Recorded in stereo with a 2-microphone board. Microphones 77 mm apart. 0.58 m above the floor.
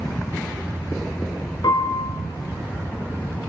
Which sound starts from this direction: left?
A piano, at 1.6 s.